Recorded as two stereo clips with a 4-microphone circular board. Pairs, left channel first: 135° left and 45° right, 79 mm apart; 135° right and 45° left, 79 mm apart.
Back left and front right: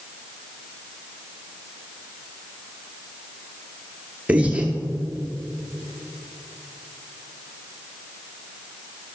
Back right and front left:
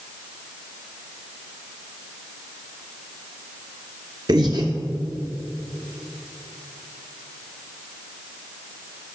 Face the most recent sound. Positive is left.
turn(degrees=25)